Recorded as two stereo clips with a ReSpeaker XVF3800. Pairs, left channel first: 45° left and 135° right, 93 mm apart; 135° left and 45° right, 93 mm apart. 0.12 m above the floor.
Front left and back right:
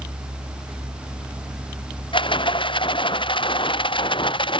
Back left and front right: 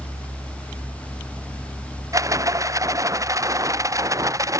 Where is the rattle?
15° left.